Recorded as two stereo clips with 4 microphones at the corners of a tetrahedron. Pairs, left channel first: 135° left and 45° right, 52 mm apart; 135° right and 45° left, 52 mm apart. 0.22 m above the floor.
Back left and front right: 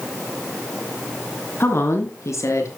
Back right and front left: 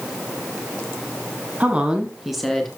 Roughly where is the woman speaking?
Left.